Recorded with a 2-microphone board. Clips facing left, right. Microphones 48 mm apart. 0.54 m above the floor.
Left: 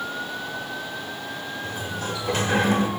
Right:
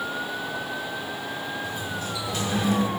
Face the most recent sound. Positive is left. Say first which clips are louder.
# left 1 dB
turn(degrees=45)  # may be behind; listen again after turning